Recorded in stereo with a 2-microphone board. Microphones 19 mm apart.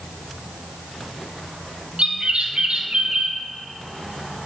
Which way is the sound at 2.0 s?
60° right (ahead or behind).